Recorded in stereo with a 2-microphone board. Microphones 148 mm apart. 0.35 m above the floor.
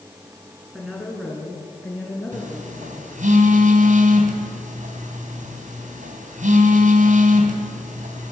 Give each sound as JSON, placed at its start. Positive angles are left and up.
{"t": 0.7, "sound": "a woman speaking", "side_deg": 0, "distance_m": 5.0}
{"t": 2.3, "sound": "a phone buzzing", "side_deg": -60, "distance_m": 3.0}